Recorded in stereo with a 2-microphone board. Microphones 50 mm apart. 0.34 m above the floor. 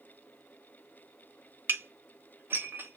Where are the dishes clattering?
45° right (ahead or behind), 0.7 m.